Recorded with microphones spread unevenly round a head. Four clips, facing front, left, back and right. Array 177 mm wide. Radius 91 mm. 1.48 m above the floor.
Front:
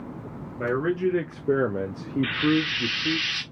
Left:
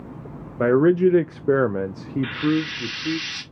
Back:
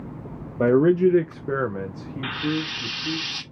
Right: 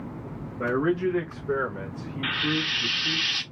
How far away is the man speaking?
About 0.6 m.